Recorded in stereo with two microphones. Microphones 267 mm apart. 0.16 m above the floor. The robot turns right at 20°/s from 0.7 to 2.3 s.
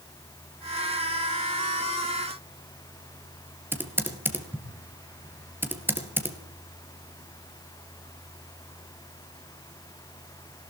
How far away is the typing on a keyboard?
About 2.5 m.